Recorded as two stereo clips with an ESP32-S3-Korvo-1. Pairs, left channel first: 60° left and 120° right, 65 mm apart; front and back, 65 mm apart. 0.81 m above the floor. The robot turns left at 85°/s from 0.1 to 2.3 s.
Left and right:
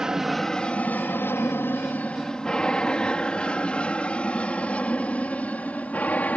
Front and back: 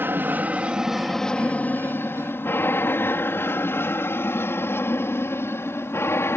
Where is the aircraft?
165° left; by 6.4 s 10° left.